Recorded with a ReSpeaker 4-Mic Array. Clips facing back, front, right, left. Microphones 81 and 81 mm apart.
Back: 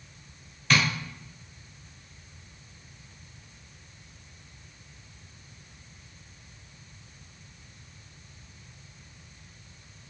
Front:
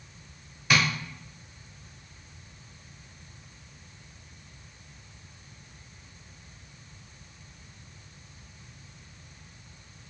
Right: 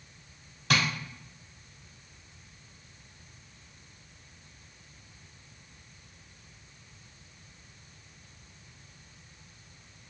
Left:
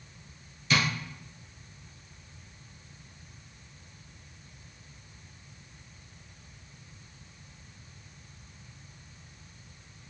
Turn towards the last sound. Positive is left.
turn(degrees=-80)